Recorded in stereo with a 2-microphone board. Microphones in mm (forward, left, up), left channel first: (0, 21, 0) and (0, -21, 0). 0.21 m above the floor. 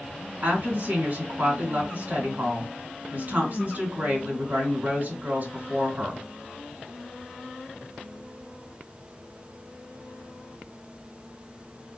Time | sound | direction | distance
0.4 | a woman speaking | 50° right (ahead or behind) | 2.5 m